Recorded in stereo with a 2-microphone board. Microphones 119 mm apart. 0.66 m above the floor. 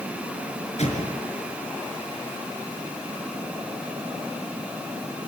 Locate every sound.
0.8 s an explosion: 60° left (ahead or behind), 4 m